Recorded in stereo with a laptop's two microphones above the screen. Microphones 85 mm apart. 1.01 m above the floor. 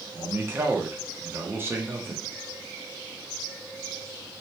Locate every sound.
0.1 s a man speaking: 25° right (ahead or behind), 0.6 m